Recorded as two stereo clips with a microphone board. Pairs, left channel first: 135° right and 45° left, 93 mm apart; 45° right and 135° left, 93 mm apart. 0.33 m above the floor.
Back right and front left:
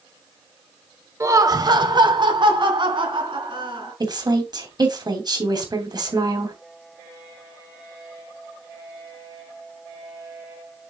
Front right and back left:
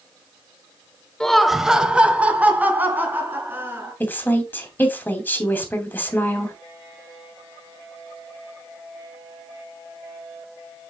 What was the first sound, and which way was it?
Laughter, 30° left.